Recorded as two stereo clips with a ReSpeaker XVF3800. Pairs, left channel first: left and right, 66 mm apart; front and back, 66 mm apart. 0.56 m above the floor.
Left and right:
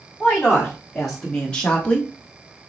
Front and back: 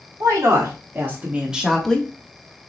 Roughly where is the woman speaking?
Behind.